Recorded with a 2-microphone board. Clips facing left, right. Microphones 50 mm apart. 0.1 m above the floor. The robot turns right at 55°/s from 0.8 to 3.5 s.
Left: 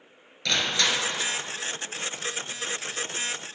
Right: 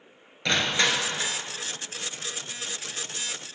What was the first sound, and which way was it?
Crushing, 40° right.